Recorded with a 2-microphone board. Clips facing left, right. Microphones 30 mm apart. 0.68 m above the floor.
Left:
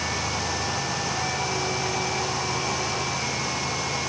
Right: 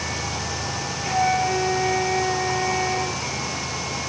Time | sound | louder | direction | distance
1.0 | a flute | right 6 dB | 60° right (ahead or behind) | ?